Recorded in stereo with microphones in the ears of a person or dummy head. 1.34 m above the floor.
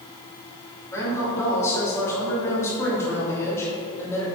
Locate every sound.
0.9 s a woman speaking: 10° left (ahead or behind), 2 m